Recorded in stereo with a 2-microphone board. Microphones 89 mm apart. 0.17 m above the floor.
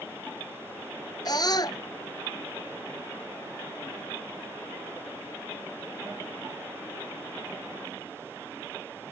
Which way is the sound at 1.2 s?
50° left (ahead or behind).